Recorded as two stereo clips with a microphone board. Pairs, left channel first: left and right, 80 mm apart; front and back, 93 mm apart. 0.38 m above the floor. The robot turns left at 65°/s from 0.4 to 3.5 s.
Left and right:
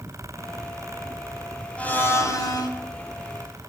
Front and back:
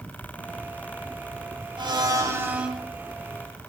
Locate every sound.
1.8 s a blender: 160° left, 2 m; by 2.7 s 100° left, 2 m